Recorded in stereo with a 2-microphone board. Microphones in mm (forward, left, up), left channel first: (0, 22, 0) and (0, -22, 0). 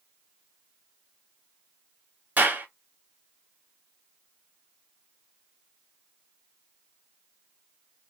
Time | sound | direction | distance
2.4 | a clap | 45° right (ahead or behind) | 2.5 m